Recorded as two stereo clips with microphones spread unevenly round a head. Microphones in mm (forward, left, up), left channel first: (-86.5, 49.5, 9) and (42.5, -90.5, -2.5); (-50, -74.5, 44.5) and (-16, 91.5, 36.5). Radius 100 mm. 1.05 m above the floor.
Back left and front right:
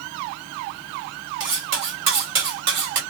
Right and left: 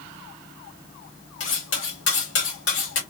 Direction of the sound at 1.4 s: 70° right.